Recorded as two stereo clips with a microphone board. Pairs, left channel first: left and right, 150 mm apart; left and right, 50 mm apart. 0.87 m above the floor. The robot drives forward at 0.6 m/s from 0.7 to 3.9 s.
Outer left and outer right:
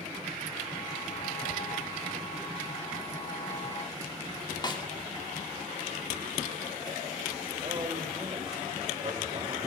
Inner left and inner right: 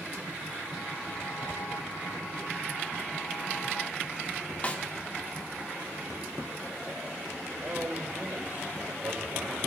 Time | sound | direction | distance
4.6 | a snare drum | 30° left (ahead or behind) | 1.4 m
7.6 | a man speaking | 35° right (ahead or behind) | 3 m